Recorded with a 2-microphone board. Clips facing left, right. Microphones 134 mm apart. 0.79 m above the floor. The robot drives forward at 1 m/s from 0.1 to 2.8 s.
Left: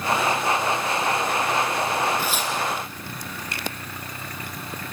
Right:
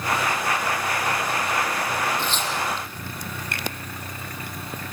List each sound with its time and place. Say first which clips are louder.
2.2 s tearing paper: left 1 dB; 10° left (ahead or behind), 5.5 m
3.5 s a finger snap: right 1 dB; 55° right (ahead or behind), 5.5 m